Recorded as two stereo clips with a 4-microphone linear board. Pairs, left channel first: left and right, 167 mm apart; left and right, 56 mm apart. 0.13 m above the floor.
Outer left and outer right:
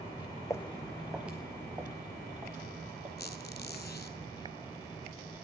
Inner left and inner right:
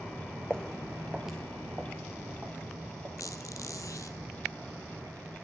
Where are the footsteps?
20° left (ahead or behind), 0.5 m; by 3.1 s 20° right (ahead or behind), 2.5 m.